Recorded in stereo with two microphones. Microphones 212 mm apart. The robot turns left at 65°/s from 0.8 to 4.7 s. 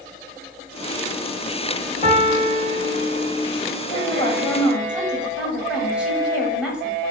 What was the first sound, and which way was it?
A piano, 115° left.